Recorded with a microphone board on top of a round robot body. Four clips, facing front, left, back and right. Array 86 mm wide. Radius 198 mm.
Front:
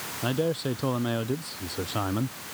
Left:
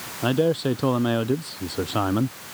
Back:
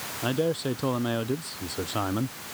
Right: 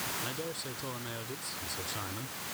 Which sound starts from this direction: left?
A man speaking, at 0.2 s.